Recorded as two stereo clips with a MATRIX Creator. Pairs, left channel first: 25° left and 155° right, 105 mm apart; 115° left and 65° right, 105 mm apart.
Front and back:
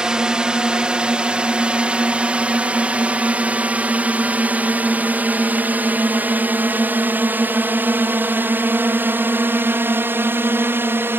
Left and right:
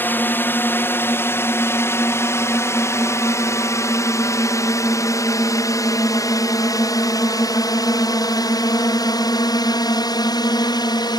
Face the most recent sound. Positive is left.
turn(degrees=140)